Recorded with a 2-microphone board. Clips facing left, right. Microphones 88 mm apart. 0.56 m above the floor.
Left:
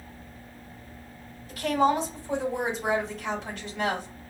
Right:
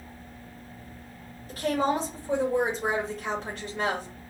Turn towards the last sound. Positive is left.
turn(degrees=-50)  # may be behind; listen again after turning